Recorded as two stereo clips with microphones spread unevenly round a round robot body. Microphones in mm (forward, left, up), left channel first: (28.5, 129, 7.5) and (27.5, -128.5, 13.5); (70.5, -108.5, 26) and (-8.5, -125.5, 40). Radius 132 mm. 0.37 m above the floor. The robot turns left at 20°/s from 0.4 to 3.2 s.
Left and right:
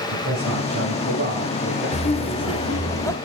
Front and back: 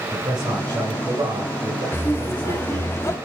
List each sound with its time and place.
0.1 s a man speaking: 125° right, 5 m; by 2.9 s 175° right, 5 m
1.9 s laughter: 40° left, 1.5 m; by 3.2 s 15° left, 1.5 m